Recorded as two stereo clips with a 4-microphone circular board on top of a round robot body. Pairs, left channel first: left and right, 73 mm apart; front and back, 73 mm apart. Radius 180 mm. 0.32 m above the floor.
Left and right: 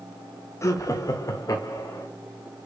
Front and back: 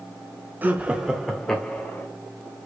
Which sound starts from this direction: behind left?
Laughter, at 0.6 s.